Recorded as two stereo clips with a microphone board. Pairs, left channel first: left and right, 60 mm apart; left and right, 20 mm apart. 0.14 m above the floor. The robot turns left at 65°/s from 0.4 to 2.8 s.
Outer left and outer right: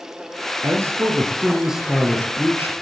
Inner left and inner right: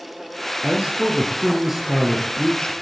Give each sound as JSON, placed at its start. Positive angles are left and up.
{"t": 0.6, "sound": "a man speaking", "azimuth_deg": -100, "distance_m": 3.0}